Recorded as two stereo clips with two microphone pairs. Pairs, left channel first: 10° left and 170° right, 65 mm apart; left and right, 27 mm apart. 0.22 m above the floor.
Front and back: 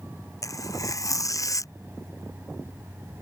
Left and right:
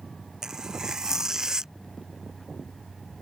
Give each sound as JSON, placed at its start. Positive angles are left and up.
{"t": 0.4, "sound": "tearing paper", "azimuth_deg": -25}